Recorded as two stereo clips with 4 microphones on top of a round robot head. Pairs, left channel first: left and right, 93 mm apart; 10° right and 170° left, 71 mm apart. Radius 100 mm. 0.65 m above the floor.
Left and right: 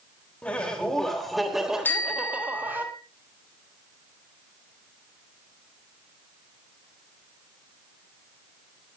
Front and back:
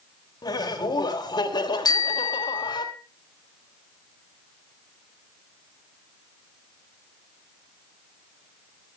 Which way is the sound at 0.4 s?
10° left.